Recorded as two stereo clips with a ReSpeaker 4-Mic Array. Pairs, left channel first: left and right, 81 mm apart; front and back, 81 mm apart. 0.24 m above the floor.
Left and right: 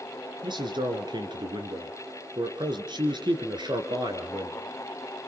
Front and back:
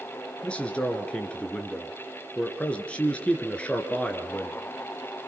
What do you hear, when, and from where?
0.4 s a man speaking: 75° right, 3.5 m